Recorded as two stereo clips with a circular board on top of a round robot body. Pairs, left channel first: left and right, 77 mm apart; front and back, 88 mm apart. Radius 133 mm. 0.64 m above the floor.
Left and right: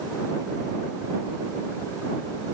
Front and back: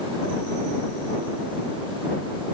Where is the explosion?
I don't hear an explosion.